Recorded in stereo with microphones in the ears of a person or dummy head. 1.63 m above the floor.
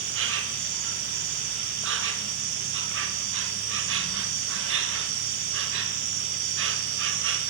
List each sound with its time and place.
0.0 s an insect: 70° right (ahead or behind), 2.5 m